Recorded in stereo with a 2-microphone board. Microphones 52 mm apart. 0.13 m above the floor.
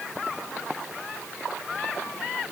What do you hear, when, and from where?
Only background noise.